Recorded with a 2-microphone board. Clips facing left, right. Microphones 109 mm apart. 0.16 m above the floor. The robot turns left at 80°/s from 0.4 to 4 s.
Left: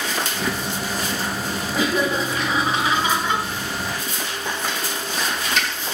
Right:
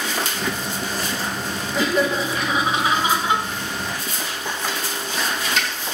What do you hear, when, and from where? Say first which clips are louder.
1.7 s laughter: right 1 dB; 10° left (ahead or behind), 1.0 m; by 3.4 s 20° right (ahead or behind), 1.0 m